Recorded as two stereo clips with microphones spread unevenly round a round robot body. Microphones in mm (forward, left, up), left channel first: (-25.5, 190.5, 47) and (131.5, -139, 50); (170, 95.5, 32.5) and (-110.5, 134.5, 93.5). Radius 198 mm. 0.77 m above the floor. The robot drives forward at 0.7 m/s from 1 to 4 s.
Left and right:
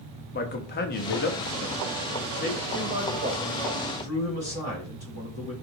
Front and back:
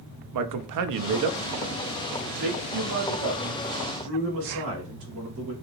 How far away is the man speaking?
About 0.6 m.